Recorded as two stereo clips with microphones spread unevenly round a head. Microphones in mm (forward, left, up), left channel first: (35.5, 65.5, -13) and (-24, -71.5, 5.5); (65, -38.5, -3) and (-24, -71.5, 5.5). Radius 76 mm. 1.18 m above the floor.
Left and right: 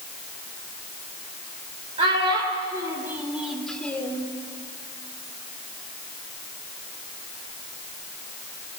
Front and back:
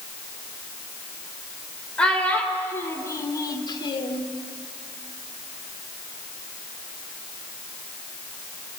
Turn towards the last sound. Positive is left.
turn(degrees=-10)